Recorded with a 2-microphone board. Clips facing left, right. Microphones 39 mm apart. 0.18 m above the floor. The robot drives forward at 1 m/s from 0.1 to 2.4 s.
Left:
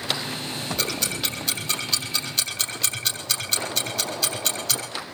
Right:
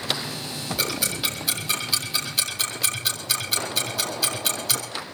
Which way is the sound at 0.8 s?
5° right (ahead or behind).